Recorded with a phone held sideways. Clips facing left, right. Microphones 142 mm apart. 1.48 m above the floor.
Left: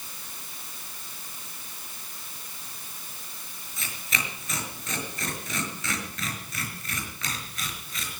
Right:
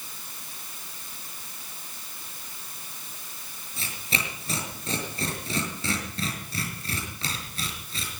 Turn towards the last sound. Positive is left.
turn(degrees=-30)  # may be behind; listen again after turning